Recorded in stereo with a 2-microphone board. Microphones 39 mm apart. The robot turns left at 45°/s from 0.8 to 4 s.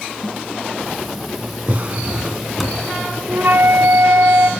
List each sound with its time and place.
1.7 s a drawer: 140° right, 2.5 m; by 2.9 s 170° left, 2.5 m
3.3 s a flute: 60° right, 2.5 m; by 4.5 s 90° right, 2.5 m